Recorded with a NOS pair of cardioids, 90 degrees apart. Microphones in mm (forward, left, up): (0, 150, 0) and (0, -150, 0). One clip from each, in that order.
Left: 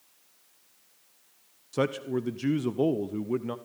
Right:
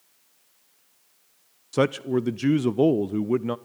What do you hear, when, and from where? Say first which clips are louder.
1.7 s a man speaking: right 5 dB; 30° right, 0.6 m